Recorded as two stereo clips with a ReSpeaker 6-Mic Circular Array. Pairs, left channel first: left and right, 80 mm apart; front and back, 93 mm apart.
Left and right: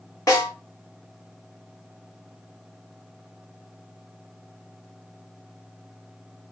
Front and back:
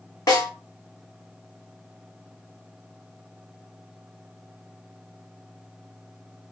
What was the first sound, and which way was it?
A snare drum, 45° left.